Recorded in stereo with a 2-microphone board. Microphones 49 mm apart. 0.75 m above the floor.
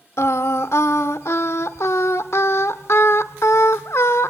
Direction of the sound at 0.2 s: 70° left (ahead or behind).